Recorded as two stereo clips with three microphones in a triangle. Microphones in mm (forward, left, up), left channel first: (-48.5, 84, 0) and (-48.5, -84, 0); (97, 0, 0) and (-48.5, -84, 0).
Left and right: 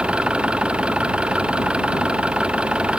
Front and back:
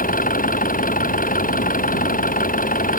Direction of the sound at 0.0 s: 5° right.